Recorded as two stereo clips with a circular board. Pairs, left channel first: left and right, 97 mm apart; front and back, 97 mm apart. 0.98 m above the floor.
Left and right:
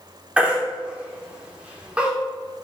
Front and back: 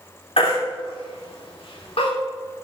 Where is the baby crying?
10° right, 2.5 m.